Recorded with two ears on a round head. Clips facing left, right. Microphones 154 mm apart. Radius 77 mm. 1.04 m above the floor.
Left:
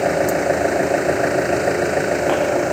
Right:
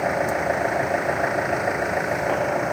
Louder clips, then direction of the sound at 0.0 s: Left 6 dB; 40° left (ahead or behind).